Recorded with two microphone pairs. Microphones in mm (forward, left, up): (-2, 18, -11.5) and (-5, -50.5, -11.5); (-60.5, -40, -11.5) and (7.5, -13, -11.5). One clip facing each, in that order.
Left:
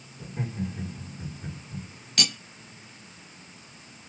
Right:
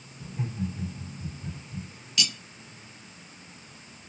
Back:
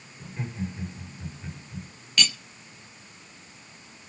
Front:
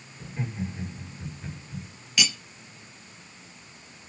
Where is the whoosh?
No whoosh in this recording.